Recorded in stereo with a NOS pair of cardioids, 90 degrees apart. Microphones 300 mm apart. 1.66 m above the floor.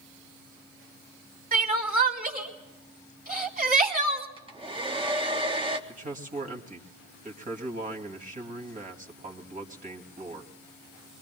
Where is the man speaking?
25° right, 2.5 m.